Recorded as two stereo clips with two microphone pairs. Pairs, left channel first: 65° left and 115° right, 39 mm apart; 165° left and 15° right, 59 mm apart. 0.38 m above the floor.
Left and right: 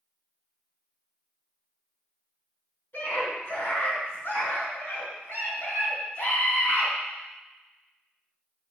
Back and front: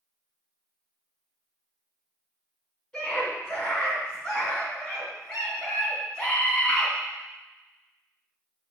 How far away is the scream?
About 3.5 m.